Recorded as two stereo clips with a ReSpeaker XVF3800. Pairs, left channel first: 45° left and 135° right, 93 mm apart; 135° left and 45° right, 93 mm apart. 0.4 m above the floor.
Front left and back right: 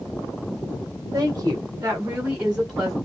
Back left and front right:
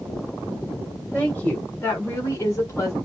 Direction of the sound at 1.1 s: 150° right.